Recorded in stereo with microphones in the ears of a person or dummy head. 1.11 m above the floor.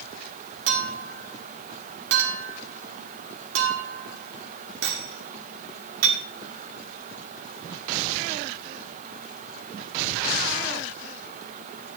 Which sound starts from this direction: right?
A clink, at 0.7 s.